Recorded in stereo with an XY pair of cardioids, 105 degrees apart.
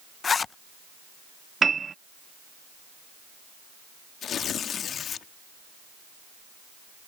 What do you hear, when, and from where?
0.2 s a zipper: 40° left
1.6 s a piano: 30° right
4.2 s tearing paper: 60° left